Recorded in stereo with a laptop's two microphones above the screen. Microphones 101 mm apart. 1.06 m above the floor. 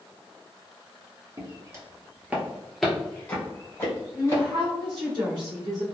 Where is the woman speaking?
50° right (ahead or behind), 1.3 m.